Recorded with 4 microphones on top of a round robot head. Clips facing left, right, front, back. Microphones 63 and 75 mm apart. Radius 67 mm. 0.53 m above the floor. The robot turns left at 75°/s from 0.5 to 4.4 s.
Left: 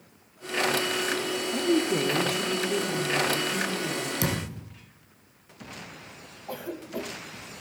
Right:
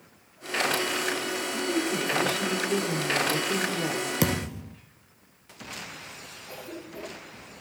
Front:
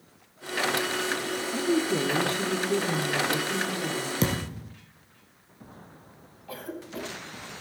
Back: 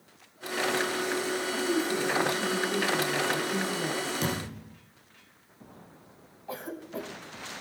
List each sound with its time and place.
1.5 s a woman speaking: 80° left, 1.4 m; by 4.1 s 115° right, 1.4 m
4.2 s a thud: 50° right, 2.5 m; by 4.8 s 65° right, 2.5 m
6.5 s a cough: 115° left, 3 m